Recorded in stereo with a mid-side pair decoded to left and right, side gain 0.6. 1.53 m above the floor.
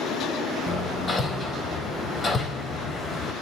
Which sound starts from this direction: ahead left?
Hammering, at 0.7 s.